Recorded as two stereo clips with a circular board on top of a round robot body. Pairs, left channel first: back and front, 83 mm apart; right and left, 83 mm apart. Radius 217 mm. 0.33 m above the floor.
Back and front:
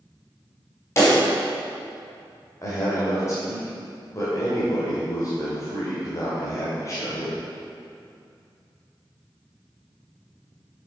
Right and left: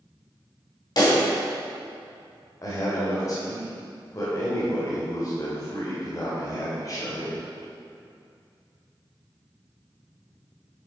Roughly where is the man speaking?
Behind right.